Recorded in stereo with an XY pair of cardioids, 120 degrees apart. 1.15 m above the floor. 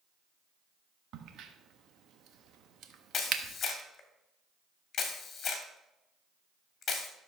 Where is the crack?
65° right, 1.2 m.